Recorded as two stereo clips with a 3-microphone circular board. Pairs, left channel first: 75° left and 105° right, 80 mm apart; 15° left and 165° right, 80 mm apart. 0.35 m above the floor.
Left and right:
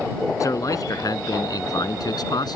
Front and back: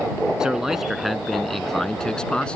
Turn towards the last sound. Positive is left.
turn(degrees=90)